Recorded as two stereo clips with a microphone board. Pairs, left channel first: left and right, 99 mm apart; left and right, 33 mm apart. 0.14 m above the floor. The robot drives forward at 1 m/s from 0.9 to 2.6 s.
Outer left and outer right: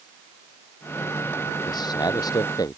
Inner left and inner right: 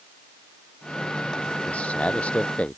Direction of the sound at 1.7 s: 45° left (ahead or behind).